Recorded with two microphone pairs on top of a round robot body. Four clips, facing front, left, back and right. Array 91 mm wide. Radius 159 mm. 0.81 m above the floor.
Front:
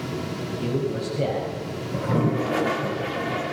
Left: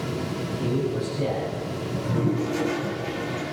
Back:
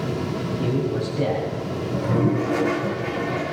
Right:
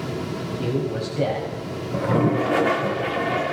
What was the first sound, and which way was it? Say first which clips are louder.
A man speaking: right 1 dB, back 1 dB; 70° right.